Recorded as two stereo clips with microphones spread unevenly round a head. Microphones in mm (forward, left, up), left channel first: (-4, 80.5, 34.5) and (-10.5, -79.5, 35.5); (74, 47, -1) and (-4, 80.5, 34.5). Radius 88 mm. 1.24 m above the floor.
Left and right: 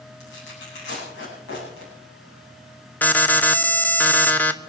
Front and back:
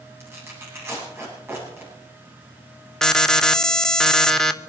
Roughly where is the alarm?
Ahead.